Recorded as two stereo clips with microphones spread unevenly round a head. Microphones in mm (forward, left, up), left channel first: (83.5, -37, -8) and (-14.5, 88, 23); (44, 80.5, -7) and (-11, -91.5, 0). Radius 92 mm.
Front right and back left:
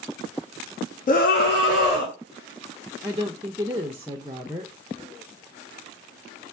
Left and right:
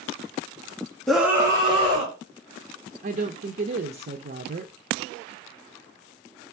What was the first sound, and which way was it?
A scream, 15° right.